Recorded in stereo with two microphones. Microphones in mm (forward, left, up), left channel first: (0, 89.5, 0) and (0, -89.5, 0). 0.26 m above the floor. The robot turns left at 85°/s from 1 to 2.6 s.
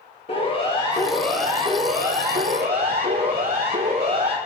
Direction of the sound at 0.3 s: 35° left (ahead or behind).